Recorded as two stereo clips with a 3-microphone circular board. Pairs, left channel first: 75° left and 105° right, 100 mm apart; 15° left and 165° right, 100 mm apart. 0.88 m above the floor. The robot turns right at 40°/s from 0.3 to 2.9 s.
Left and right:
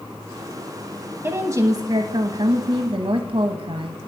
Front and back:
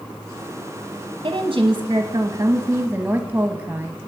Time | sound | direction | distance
1.2 | a woman speaking | 165° right | 0.9 m